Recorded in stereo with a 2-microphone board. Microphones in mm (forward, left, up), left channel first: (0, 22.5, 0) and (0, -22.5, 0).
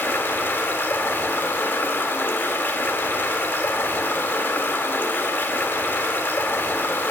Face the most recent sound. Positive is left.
turn(degrees=60)  # may be behind; listen again after turning